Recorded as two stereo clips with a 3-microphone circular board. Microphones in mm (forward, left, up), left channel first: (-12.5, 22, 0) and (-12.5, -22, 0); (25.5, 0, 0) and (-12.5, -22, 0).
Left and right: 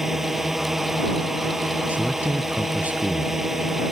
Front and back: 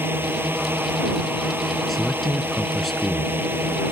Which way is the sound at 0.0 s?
170° right.